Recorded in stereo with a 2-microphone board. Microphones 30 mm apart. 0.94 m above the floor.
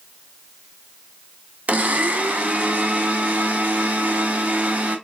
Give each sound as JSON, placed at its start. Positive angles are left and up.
{"t": 1.7, "sound": "a blender", "side_deg": -55, "distance_m": 0.8}